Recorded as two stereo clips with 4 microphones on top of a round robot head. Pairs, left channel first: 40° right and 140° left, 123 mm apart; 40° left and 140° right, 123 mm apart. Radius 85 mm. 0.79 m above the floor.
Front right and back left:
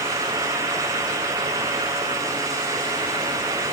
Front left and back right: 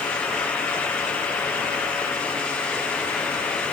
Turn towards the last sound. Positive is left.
No sound to turn to.